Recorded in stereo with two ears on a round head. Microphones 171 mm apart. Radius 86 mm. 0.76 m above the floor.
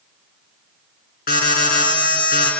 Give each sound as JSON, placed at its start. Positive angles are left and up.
{"t": 1.3, "sound": "an alarm", "side_deg": 50, "distance_m": 5.5}